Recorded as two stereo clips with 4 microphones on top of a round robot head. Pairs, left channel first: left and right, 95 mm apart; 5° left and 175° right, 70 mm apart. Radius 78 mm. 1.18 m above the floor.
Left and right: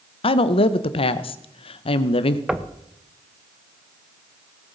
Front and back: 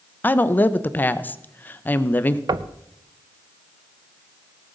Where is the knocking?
175° right, 0.6 m.